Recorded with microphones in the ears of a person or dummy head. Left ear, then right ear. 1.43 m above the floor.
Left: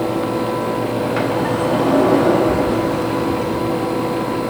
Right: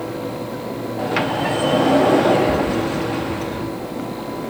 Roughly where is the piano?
I don't hear a piano.